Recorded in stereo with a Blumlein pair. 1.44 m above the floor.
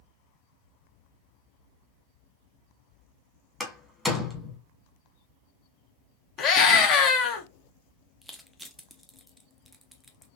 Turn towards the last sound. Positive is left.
turn(degrees=-5)